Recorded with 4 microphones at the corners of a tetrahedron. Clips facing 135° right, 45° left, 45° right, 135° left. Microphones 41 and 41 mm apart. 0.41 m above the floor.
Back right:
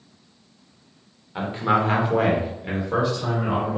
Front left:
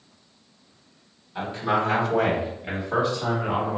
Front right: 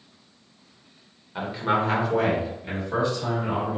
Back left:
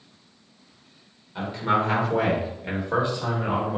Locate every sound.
1.4 s a man speaking: 95° right, 1.4 m; by 3.8 s 115° left, 1.9 m